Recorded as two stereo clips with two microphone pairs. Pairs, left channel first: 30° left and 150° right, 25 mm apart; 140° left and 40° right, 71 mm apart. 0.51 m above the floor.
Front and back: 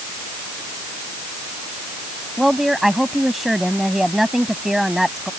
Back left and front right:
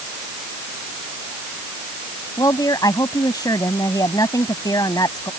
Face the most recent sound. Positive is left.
turn(degrees=125)